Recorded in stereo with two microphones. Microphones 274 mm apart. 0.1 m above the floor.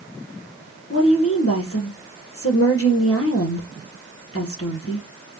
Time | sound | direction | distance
0.9 | a woman speaking | 55° left (ahead or behind) | 2 m